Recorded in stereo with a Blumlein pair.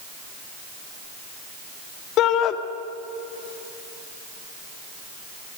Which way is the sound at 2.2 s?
35° left.